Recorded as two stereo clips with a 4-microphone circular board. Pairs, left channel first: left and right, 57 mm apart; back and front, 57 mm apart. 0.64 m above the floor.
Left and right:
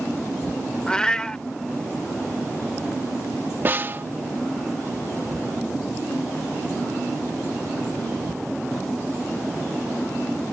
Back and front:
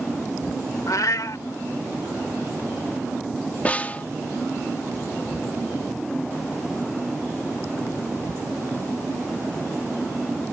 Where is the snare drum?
125° right.